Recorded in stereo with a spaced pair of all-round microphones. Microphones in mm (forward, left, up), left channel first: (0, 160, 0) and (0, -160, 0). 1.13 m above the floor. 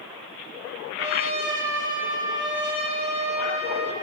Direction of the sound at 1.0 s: 35° right (ahead or behind).